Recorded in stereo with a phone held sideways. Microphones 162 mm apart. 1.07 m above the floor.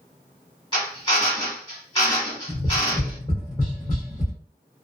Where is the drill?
30° left (ahead or behind), 1.9 m.